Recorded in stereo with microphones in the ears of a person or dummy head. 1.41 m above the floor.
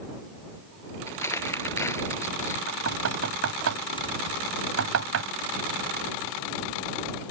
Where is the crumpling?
10° left (ahead or behind).